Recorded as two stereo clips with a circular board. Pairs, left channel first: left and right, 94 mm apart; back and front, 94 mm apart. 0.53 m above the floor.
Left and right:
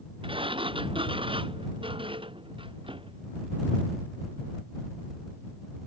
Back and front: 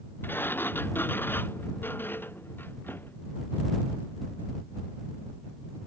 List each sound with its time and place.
0.2 s a sliding door: 110° right